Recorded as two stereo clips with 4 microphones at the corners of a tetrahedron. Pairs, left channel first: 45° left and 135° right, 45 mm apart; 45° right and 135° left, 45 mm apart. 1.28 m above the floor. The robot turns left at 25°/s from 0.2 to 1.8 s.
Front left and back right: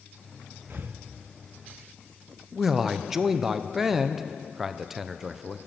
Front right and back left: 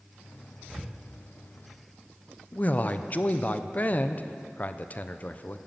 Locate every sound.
0.7 s breathing: 135° right, 0.7 m; by 1.0 s 140° right, 0.7 m
2.5 s a man speaking: 55° right, 0.6 m